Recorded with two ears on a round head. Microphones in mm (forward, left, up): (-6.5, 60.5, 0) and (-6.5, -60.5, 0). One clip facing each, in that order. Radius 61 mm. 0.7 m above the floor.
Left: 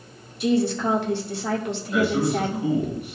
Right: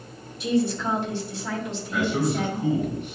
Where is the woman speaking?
50° left (ahead or behind), 2.0 m.